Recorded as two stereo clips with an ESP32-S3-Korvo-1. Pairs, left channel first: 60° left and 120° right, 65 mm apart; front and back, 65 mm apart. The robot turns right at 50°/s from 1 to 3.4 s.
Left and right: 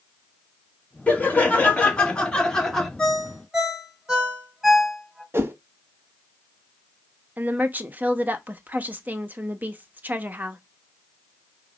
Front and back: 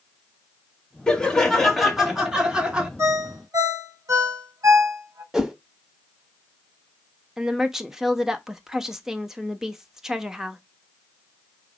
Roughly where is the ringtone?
Behind left.